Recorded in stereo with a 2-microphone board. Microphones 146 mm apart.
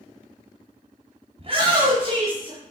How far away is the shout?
About 1.8 m.